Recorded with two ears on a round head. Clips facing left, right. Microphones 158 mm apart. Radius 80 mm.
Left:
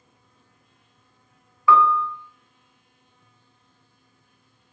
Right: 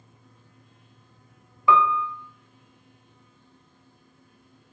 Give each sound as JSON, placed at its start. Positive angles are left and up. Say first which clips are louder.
{"t": 1.7, "sound": "a piano", "louder": "left 2 dB", "side_deg": -15, "distance_m": 0.6}